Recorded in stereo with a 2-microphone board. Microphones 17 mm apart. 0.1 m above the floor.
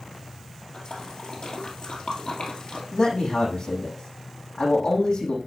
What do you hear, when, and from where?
0.7 s a splash: 60° left (ahead or behind), 2.5 m
2.9 s a man speaking: 65° left (ahead or behind), 5 m